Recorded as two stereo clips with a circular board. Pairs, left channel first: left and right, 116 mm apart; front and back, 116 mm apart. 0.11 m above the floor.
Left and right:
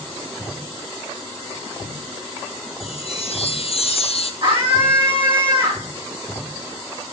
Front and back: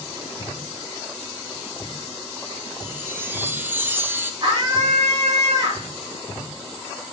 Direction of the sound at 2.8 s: 110° left.